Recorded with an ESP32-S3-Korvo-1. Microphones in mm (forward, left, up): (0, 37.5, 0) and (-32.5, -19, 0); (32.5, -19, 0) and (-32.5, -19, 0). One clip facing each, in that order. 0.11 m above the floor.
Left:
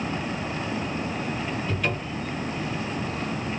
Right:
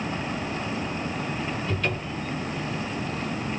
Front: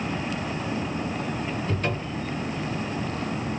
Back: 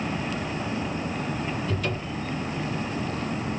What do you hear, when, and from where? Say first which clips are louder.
1.7 s a cupboard door: even, front 1 dB; 25° right, 2.0 m